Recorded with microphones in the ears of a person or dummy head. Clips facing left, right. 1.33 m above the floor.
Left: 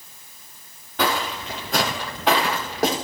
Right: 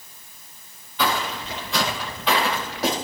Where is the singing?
I don't hear singing.